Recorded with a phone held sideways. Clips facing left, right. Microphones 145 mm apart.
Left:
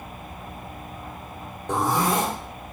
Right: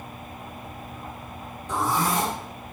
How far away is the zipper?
About 2 m.